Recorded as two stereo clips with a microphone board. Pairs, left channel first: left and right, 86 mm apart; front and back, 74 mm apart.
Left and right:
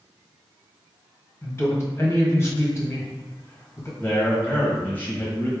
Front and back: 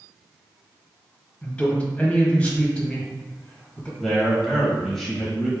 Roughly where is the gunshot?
No gunshot in this recording.